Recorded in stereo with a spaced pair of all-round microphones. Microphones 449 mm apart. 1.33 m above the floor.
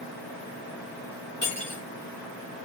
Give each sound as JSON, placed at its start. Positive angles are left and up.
{"t": 1.4, "sound": "cutlery clinking", "side_deg": 30, "distance_m": 1.1}